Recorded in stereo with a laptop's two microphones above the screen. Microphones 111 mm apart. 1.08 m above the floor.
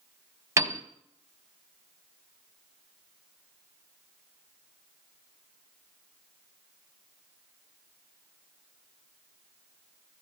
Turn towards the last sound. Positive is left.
turn(degrees=-25)  # may be behind; listen again after turning